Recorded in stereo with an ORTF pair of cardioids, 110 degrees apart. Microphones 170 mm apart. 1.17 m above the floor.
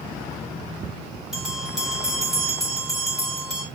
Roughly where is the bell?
Ahead.